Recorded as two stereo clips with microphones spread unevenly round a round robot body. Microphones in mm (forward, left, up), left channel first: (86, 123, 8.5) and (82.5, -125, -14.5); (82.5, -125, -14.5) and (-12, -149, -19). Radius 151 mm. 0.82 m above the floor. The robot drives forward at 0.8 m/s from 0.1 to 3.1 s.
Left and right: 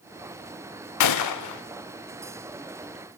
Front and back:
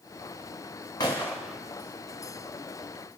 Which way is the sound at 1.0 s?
85° left.